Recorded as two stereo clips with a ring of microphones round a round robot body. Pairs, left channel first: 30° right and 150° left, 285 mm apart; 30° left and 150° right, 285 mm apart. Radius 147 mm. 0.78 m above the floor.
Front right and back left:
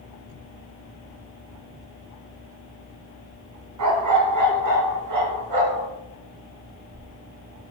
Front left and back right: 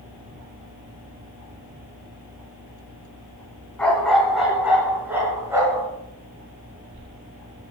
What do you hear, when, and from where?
3.8 s a dog barking: 115° left, 3 m; by 5.9 s 130° left, 4.5 m